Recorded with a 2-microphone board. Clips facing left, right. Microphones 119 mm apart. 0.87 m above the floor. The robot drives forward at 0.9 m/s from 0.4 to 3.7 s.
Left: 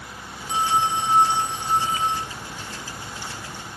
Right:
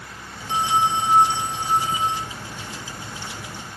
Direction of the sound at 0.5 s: 25° right (ahead or behind).